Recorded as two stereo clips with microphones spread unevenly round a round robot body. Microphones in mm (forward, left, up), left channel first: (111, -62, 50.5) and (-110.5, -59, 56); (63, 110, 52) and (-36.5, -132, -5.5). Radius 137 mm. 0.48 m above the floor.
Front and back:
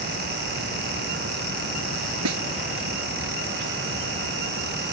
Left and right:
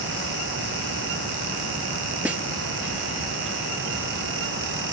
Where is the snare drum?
160° left.